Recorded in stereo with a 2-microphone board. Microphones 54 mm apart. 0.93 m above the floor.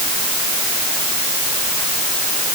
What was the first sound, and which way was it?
Only background noise.